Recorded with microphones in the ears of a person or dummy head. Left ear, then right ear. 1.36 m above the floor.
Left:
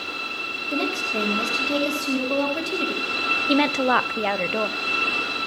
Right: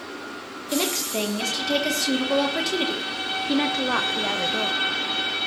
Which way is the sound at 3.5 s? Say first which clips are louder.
Left 2 dB; 25° left (ahead or behind).